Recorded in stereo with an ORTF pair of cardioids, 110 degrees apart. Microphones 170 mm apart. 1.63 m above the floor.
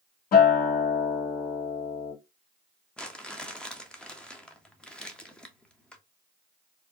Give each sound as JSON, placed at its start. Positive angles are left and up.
{"t": 0.3, "sound": "a guitar", "azimuth_deg": 65, "distance_m": 2.0}
{"t": 3.0, "sound": "crumpling", "azimuth_deg": 5, "distance_m": 0.8}